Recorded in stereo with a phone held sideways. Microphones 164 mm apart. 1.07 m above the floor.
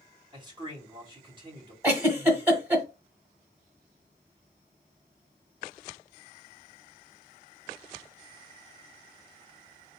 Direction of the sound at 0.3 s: 30° right (ahead or behind).